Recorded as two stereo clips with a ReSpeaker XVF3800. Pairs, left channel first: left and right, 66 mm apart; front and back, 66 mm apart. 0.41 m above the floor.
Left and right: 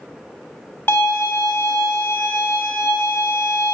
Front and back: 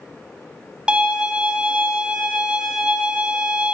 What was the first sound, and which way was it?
A violin, 115° left.